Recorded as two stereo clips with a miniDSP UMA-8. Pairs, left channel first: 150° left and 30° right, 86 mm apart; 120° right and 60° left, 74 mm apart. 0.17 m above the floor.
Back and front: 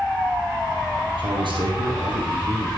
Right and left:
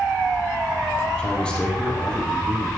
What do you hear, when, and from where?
1.2 s a man speaking: 45° right, 4 m